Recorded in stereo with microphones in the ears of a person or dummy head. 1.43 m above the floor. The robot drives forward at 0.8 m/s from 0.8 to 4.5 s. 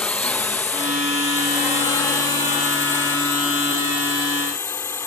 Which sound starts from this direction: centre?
A drone, at 0.0 s.